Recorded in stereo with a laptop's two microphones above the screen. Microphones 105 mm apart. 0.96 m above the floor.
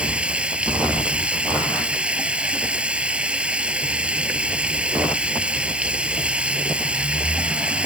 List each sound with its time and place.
0.0 s running water: 10° right (ahead or behind)